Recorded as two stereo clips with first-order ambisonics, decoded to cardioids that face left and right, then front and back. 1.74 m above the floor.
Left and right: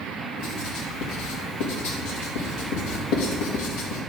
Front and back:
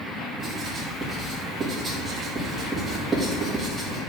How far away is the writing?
About 3 m.